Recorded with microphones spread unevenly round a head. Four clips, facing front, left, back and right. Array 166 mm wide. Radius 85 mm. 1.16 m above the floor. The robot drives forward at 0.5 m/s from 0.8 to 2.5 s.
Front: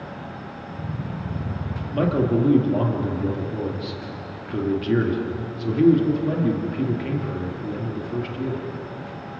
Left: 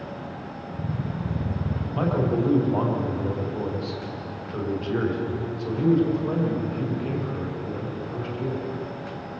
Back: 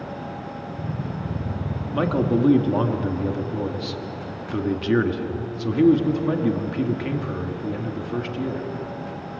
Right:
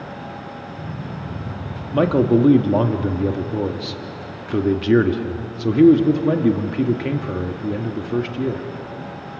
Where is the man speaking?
95° right, 1.8 m; by 8.6 s 105° right, 1.9 m.